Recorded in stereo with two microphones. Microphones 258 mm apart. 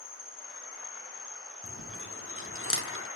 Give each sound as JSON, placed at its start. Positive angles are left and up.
{"t": 0.0, "sound": "an insect", "side_deg": 35, "distance_m": 1.5}
{"t": 1.6, "sound": "chewing", "side_deg": 55, "distance_m": 0.6}